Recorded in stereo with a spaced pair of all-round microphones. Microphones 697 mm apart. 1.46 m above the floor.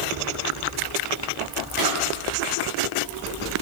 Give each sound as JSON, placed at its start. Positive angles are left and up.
{"t": 1.8, "sound": "a drawer", "side_deg": -30, "distance_m": 4.5}